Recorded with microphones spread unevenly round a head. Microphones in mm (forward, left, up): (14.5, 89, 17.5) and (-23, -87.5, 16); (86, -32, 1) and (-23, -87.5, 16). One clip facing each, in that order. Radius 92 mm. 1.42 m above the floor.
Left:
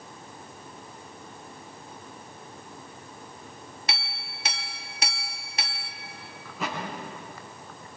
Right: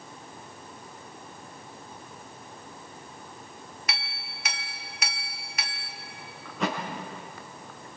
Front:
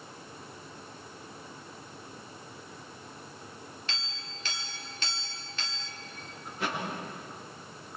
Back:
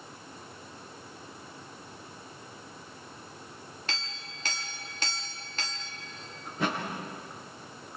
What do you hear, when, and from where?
3.9 s a clink: 140° left, 2 m
6.5 s a thud: 165° left, 7 m